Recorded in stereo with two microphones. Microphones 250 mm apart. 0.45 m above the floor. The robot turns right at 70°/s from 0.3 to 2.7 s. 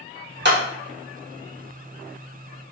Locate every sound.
0.5 s a clap: 45° right (ahead or behind), 0.7 m